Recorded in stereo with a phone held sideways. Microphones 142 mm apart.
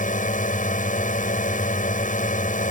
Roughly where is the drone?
Left.